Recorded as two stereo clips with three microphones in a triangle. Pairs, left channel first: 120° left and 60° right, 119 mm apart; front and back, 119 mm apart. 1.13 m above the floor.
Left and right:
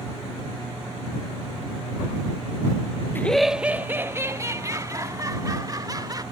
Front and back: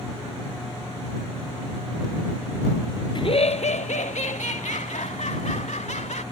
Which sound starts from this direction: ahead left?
Laughter, at 3.1 s.